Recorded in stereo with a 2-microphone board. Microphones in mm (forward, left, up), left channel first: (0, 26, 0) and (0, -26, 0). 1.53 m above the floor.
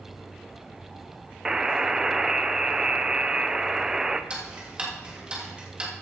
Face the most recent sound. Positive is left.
turn(degrees=-20)  # may be behind; listen again after turning